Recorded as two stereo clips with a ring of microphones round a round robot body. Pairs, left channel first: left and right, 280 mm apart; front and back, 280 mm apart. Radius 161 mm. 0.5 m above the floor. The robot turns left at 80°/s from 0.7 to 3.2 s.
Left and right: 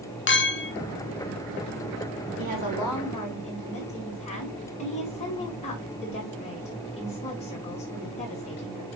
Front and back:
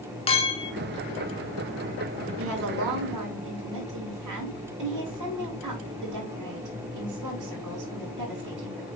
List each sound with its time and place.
0.3 s a clink: 60° left, 0.9 m
2.4 s a woman speaking: 135° right, 4.5 m; by 8.9 s 160° left, 4.5 m